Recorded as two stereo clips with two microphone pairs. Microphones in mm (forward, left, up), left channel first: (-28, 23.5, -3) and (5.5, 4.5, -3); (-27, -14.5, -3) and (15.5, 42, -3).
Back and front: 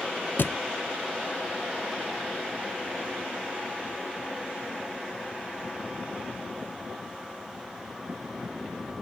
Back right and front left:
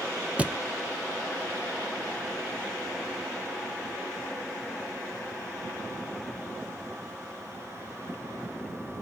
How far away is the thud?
About 0.7 m.